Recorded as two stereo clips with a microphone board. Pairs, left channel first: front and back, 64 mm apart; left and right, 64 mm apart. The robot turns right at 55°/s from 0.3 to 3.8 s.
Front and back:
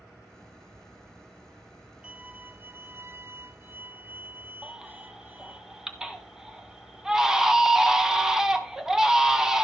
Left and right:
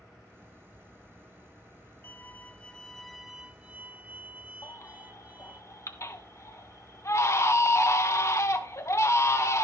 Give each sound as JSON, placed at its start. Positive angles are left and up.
{"t": 2.0, "sound": "a violin", "azimuth_deg": 120, "distance_m": 0.6}
{"t": 4.6, "sound": "a baby crying", "azimuth_deg": 100, "distance_m": 1.1}